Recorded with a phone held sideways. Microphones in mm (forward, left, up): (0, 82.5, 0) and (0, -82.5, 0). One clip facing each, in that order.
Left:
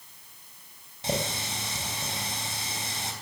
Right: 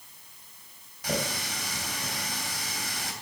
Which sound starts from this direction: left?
A running tap, at 1.0 s.